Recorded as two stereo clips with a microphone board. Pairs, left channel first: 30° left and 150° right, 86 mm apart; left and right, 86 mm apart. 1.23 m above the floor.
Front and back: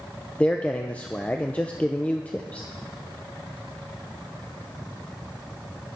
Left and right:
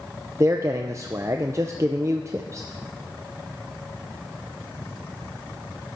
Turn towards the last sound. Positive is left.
turn(degrees=-40)